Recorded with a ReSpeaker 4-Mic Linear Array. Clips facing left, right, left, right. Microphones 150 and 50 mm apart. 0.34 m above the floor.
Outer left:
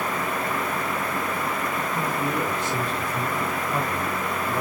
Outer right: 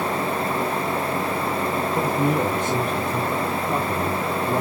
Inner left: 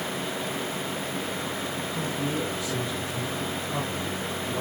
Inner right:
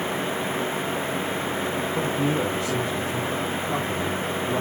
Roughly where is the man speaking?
Right.